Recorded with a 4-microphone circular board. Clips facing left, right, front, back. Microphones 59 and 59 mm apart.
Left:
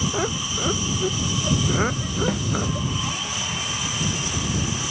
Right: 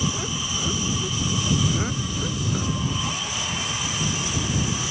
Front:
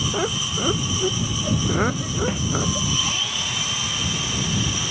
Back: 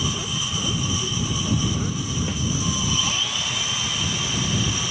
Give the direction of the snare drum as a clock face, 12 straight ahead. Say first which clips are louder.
Left 4 dB, front 2 dB; 10 o'clock.